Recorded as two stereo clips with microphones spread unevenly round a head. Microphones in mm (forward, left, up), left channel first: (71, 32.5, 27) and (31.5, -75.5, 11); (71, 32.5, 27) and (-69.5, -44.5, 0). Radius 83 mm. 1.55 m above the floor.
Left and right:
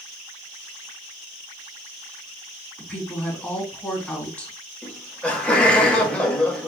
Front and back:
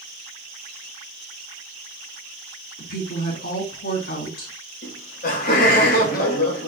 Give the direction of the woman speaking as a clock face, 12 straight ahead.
12 o'clock.